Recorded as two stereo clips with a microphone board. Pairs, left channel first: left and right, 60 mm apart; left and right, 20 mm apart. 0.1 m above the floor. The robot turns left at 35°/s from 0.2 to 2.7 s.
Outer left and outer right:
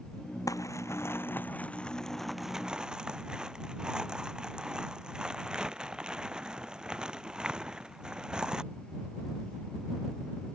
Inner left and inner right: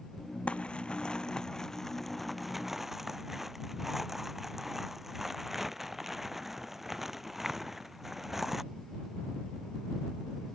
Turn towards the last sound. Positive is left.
turn(degrees=-15)